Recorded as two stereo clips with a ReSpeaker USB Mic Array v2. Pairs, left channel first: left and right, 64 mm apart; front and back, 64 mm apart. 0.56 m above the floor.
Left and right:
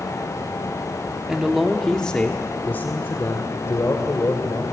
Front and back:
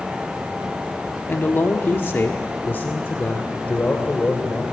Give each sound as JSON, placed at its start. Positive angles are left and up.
{"t": 1.3, "sound": "a man speaking", "azimuth_deg": -20, "distance_m": 1.4}